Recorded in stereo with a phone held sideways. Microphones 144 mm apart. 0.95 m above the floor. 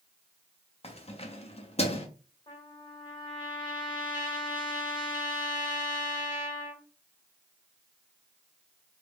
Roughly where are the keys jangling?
Left.